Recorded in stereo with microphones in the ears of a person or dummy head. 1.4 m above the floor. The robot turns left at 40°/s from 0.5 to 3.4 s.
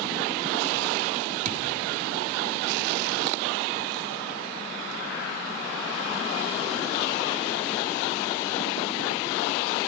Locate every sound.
1.4 s a thud: 40° right (ahead or behind), 1.4 m; by 1.6 s 45° right (ahead or behind), 1.4 m